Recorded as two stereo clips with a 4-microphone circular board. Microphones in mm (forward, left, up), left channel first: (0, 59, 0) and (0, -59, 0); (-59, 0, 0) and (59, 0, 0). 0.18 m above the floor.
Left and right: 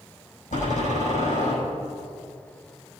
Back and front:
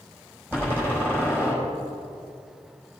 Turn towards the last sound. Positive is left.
turn(degrees=75)